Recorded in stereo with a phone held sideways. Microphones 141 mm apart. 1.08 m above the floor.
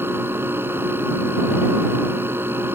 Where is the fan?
15° right (ahead or behind).